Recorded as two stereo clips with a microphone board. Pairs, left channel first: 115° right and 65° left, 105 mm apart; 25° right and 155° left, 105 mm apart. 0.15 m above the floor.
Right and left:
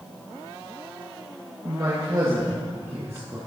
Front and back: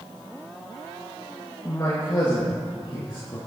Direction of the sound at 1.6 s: 25° left.